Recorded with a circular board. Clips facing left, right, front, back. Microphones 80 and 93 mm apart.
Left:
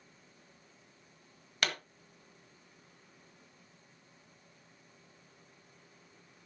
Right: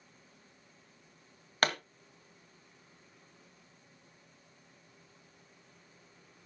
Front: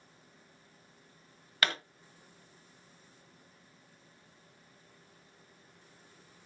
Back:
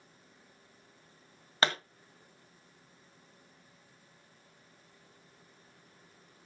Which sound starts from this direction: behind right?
A pop, at 1.6 s.